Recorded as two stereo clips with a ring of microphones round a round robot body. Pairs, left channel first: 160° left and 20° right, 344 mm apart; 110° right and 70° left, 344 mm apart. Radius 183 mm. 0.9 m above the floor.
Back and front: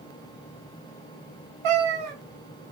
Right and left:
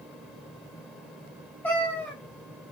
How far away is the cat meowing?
About 1.7 m.